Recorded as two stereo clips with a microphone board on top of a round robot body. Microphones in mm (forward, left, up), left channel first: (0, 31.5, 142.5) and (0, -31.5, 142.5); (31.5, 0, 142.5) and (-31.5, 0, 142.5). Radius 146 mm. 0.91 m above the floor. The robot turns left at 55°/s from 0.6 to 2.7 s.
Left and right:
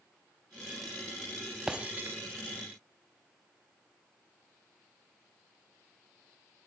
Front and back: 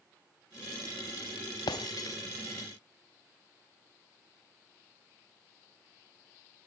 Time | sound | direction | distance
1.7 | breaking glass | 10° right | 0.6 m